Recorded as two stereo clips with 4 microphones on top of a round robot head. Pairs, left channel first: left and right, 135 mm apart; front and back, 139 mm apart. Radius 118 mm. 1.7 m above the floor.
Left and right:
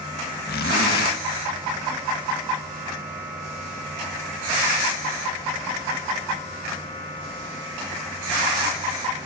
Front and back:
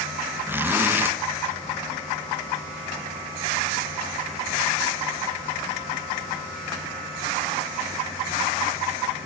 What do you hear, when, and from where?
0.5 s a zipper: 105° left, 1.7 m